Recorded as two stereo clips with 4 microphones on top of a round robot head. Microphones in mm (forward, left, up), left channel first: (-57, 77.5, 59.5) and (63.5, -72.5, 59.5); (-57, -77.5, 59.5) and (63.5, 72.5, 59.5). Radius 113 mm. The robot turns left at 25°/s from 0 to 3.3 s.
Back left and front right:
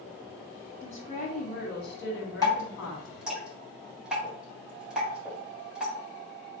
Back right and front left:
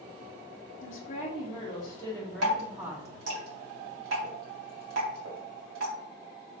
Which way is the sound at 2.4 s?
55° left.